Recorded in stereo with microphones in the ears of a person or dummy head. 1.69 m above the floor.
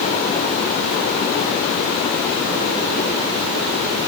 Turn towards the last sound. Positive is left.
No sound to turn to.